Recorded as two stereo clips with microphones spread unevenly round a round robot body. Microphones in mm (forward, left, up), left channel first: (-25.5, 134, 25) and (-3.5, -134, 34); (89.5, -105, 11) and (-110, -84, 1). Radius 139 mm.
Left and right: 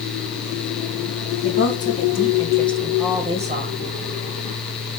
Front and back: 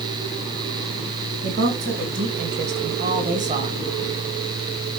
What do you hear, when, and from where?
1.4 s a woman speaking: 145° left, 3 m; by 3.8 s 130° right, 2 m